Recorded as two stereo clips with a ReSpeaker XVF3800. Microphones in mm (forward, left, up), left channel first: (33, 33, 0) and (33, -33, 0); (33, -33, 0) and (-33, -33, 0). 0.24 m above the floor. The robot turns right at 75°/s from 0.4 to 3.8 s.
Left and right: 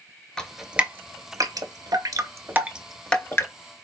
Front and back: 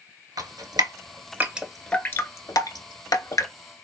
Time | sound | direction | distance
0.4 | dripping | 170° left | 0.7 m